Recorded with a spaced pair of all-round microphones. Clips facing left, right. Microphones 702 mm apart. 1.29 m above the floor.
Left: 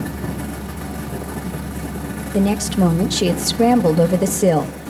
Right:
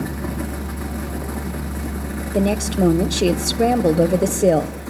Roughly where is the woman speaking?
Left.